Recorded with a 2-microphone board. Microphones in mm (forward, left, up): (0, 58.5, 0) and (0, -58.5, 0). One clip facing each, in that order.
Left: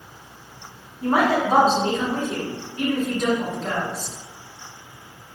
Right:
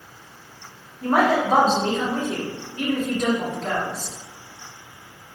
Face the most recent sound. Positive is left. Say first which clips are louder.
# right 1 dB
turn(degrees=5)  # may be behind; listen again after turning